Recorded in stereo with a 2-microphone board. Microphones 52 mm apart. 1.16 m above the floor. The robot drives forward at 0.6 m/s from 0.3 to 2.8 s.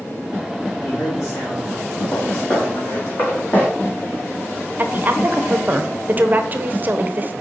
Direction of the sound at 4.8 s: 35° right (ahead or behind).